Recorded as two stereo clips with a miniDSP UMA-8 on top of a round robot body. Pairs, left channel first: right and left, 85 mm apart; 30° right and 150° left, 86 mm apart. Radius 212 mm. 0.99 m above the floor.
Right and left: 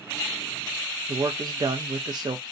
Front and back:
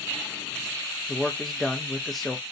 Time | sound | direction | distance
1.1 | a man speaking | 60° left | 0.6 m